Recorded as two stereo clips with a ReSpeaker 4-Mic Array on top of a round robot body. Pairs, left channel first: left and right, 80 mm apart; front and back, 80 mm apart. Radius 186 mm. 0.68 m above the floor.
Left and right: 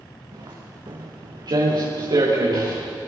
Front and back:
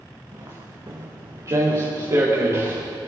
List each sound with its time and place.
0.3 s footsteps: 130° right, 4.5 m; by 2.8 s 125° right, 5.5 m